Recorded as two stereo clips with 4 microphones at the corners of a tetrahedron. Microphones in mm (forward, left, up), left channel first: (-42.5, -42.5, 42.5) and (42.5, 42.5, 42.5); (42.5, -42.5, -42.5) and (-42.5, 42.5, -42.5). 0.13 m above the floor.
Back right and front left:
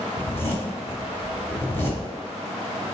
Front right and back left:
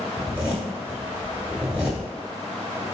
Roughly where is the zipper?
Behind.